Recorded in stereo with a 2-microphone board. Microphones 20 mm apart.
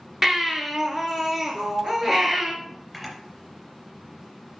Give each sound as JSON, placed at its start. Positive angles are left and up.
{"t": 0.2, "sound": "a baby crying", "side_deg": -20, "distance_m": 1.3}
{"t": 1.6, "sound": "a sliding door", "side_deg": -20, "distance_m": 1.2}
{"t": 2.9, "sound": "a camera shutter", "side_deg": -5, "distance_m": 3.0}